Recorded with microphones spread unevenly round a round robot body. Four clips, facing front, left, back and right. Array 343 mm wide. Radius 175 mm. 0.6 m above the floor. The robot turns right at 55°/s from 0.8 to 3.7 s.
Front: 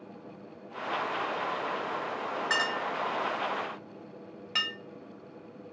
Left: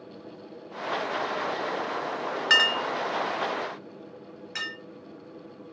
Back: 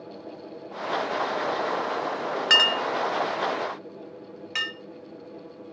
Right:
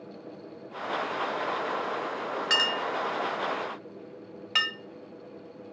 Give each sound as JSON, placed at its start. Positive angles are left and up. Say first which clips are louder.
{"t": 2.5, "sound": "a clink", "louder": "left 4 dB, back 7 dB", "azimuth_deg": 180, "distance_m": 1.1}